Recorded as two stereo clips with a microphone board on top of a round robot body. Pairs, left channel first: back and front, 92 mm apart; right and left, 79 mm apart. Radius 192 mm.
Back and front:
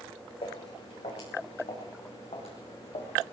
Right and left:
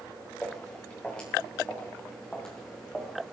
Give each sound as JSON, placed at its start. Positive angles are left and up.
{"t": 0.4, "sound": "footsteps", "azimuth_deg": -165, "distance_m": 6.5}